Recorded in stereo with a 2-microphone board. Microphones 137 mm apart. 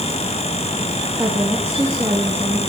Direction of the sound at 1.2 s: 20° right (ahead or behind).